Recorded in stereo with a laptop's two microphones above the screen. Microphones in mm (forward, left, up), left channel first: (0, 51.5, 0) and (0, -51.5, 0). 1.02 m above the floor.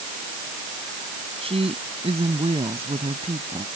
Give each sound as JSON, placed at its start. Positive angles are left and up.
{"t": 1.4, "sound": "a woman speaking", "side_deg": -65}